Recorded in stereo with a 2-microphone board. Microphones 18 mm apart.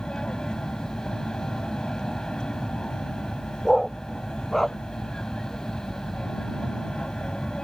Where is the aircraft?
45° left (ahead or behind).